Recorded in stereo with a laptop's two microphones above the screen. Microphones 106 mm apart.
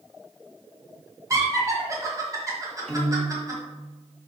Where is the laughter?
30° right (ahead or behind), 1.2 m.